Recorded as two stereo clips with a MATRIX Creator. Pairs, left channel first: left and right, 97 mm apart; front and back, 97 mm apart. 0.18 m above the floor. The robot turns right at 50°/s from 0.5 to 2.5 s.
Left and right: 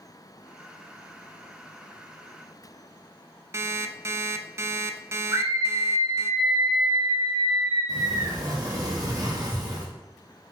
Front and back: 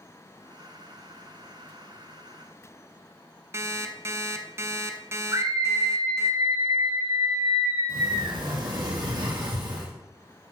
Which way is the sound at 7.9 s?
140° right.